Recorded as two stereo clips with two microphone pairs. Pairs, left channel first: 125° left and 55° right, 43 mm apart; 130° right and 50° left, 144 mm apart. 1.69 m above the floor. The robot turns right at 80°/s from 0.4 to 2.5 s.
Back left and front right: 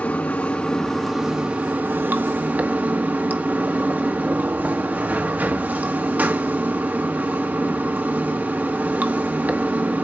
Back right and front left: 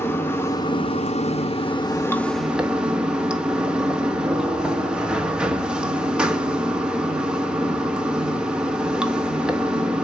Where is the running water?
165° left, 1.2 m; by 10.1 s 30° right, 1.2 m.